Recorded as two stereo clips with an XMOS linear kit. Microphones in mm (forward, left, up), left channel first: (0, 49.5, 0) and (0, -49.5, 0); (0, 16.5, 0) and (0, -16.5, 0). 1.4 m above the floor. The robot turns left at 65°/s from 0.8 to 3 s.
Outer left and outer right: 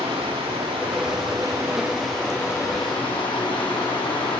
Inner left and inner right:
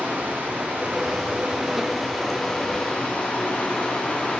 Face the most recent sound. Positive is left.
turn(degrees=120)